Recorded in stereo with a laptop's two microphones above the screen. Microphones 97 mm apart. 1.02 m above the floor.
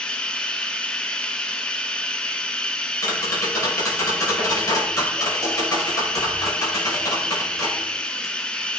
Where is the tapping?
40° left (ahead or behind), 6 m.